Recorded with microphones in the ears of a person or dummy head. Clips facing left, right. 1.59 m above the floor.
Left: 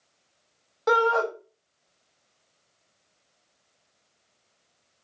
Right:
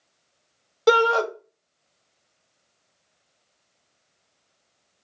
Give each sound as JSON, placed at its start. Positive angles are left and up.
{"t": 0.9, "sound": "a shout", "side_deg": -40, "distance_m": 0.8}